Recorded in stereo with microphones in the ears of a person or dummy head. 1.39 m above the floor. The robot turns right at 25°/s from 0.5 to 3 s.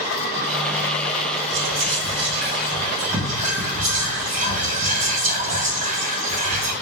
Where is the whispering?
75° right (ahead or behind), 0.8 m; by 6.7 s 40° right (ahead or behind), 0.8 m.